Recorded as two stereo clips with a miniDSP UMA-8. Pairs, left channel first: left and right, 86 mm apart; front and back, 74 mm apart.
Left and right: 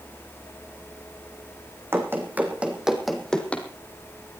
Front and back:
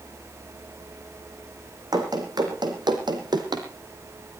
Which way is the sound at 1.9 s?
150° right.